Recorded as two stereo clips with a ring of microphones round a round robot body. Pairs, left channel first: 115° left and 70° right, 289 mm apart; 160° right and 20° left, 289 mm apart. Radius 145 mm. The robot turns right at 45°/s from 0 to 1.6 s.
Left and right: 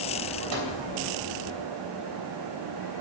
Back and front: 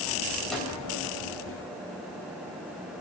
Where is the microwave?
70° right, 3 m; by 0.7 s 60° right, 3 m.